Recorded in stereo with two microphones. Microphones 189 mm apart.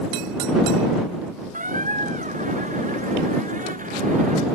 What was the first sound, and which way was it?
A squeak, 45° right (ahead or behind).